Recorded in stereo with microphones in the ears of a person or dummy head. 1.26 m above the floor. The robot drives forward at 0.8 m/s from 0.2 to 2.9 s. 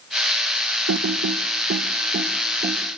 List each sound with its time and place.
0.9 s typing on a keyboard: 75° right (ahead or behind), 1.1 m; by 2.8 s 35° right (ahead or behind), 2.0 m